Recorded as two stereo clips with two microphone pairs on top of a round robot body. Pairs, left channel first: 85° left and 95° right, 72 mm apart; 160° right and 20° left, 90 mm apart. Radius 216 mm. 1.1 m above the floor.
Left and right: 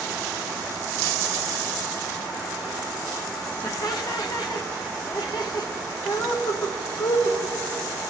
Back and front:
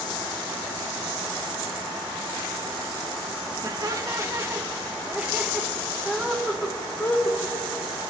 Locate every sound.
3.6 s laughter: 65° left, 2 m; by 7.4 s 125° left, 2.5 m